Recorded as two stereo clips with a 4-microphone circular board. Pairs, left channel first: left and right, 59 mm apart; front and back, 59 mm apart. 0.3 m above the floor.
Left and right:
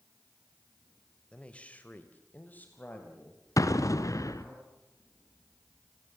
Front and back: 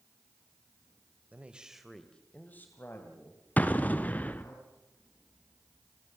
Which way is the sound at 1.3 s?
150° left.